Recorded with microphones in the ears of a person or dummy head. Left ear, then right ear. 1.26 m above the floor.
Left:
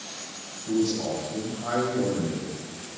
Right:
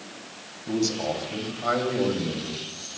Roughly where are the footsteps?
No footsteps in this recording.